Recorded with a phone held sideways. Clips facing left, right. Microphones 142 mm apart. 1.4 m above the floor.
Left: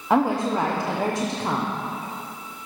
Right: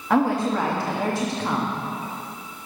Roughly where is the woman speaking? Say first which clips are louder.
Even; left.